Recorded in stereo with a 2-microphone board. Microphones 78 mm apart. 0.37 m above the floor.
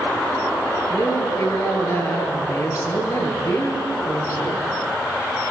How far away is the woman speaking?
About 6.5 m.